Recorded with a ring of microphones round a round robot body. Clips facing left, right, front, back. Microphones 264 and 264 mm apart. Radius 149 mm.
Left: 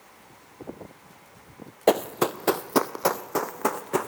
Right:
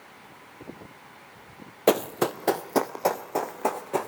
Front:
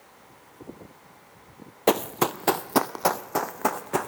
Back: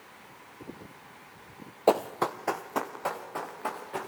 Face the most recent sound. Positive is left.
turn(degrees=20)